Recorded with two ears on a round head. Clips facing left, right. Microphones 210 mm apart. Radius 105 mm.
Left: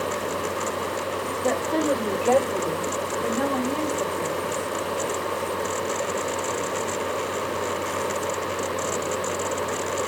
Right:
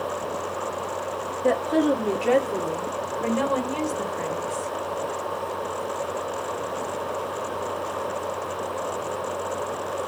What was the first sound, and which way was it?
A woman speaking, 5° right (ahead or behind).